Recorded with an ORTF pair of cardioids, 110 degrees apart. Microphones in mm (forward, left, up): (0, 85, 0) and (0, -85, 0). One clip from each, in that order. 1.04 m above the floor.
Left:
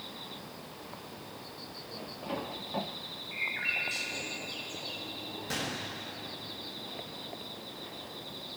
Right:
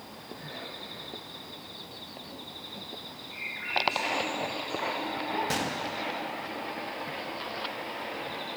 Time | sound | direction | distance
3.3 | a bird | 30° left | 2.5 m
5.5 | a gunshot | 30° right | 1.4 m